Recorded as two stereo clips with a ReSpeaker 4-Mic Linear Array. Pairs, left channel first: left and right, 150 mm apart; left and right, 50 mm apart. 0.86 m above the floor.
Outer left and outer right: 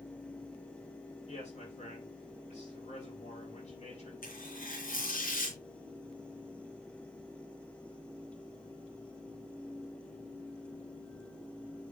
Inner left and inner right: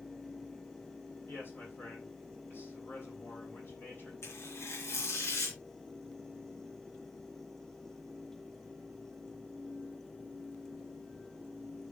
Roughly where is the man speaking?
Left.